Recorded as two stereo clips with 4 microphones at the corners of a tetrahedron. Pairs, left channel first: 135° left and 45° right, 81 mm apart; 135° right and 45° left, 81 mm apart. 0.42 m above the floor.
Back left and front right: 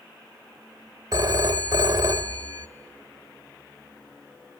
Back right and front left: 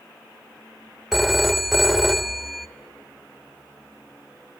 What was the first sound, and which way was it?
A phone ringing, 45° right.